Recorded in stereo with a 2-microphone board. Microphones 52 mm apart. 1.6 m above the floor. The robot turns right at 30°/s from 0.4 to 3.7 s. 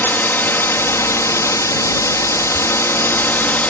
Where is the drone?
45° left; by 3.7 s 145° left.